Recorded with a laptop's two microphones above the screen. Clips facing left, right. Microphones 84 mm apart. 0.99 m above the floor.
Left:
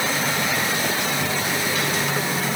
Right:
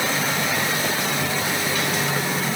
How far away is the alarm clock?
No alarm clock in this recording.